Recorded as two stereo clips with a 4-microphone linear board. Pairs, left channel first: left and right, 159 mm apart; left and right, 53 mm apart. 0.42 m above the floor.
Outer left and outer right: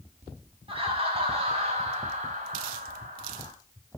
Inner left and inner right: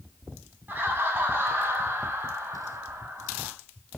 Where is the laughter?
35° right (ahead or behind), 4 m; by 3.5 s 55° right (ahead or behind), 3 m.